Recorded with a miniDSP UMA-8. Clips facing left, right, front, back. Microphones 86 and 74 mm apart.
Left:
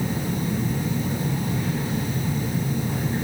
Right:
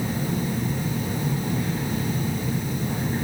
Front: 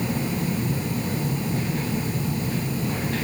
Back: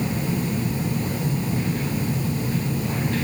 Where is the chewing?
No chewing in this recording.